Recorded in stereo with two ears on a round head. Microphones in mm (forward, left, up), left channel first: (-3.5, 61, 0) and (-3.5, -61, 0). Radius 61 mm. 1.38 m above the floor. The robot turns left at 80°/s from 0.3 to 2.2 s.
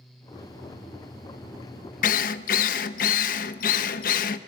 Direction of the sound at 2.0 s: 60° left (ahead or behind).